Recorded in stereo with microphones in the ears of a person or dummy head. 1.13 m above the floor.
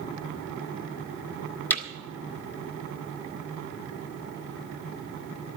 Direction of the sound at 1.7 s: 10° left (ahead or behind).